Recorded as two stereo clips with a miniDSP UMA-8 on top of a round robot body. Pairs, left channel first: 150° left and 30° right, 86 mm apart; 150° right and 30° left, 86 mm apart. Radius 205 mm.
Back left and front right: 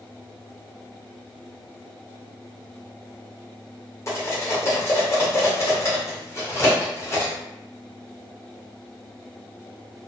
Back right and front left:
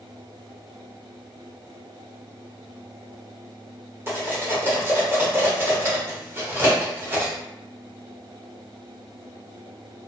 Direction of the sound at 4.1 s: 95° left.